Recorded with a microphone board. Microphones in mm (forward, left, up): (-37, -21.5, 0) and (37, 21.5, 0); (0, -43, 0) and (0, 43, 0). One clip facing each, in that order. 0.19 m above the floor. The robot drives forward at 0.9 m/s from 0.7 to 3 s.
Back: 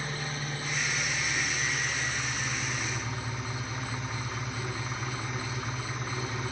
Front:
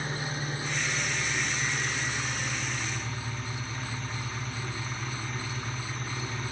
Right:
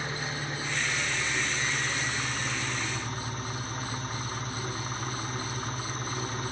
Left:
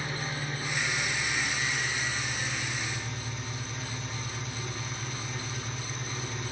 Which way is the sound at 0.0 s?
25° right.